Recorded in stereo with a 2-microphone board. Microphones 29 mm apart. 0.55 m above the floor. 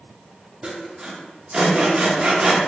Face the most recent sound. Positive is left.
turn(degrees=-35)  # may be behind; listen again after turning